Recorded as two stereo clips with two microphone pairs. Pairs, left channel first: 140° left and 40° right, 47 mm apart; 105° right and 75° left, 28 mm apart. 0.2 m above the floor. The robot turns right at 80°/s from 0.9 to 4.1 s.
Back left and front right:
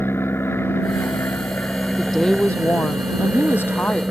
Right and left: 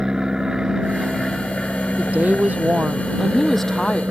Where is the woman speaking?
45° left; by 4.0 s 155° right.